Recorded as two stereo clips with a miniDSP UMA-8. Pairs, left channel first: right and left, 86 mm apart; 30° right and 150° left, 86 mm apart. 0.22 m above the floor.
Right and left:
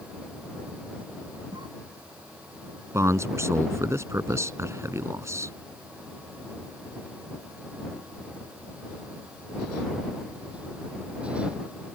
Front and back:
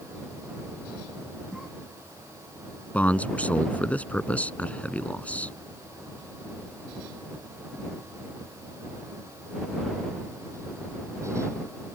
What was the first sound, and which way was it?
A cough, 65° left.